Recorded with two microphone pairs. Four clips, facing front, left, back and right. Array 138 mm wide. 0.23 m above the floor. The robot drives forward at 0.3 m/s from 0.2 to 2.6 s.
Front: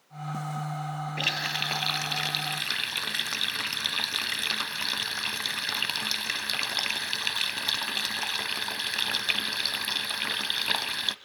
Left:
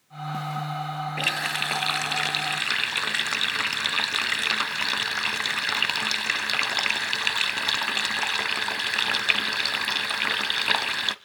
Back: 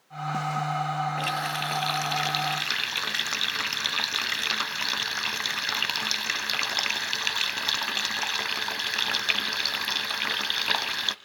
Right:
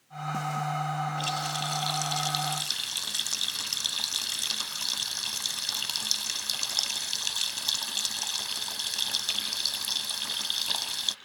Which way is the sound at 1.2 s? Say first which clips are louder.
Left 2 dB, back 4 dB; 55° left.